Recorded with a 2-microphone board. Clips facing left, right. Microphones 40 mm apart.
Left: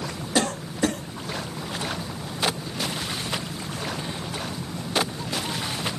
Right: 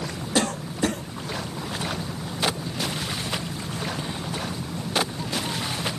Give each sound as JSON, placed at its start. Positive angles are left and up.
{"t": 0.3, "sound": "a cough", "side_deg": 0, "distance_m": 5.5}